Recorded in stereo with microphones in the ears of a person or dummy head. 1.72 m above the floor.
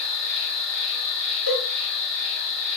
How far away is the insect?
About 1.9 m.